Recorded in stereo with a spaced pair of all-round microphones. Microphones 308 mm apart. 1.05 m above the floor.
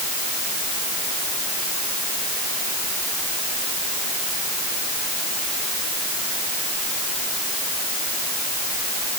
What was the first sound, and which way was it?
Only background noise.